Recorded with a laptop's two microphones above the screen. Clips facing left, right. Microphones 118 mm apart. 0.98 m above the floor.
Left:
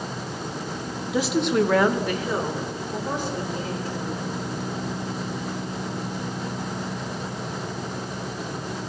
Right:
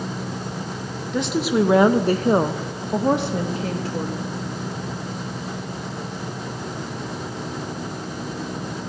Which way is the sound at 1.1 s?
5° left (ahead or behind).